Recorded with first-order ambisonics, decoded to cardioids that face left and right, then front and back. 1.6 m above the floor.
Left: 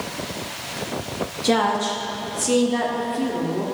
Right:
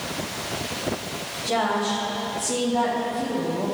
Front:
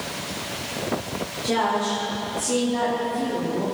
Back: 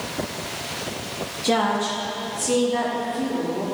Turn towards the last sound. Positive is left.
turn(degrees=105)